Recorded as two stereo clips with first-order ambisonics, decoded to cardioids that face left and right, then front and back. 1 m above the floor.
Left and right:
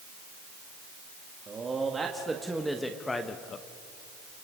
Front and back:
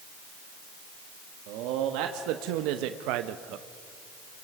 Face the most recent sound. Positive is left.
turn(degrees=140)